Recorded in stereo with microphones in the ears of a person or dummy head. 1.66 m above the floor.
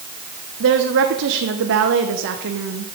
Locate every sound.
0.6 s a woman speaking: 65° right (ahead or behind), 1.0 m